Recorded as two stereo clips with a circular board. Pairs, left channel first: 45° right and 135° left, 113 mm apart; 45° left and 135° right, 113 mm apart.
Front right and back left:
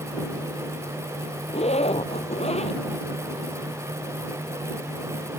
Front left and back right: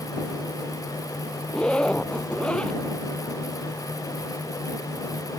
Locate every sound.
1.5 s a zipper: 35° right